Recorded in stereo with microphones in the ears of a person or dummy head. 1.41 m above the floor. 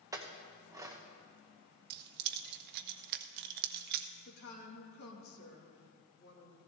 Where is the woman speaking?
80° left, 2.5 m.